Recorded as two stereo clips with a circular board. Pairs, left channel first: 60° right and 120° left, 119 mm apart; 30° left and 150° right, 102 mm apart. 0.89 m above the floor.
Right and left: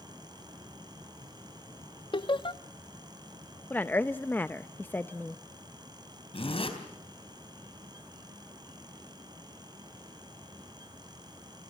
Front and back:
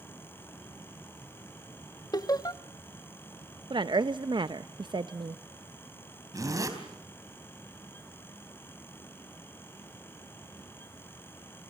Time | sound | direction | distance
2.1 | laughter | 20° right | 1.0 m
3.7 | a woman speaking | 130° right | 0.5 m
6.3 | a zipper | 95° right | 4 m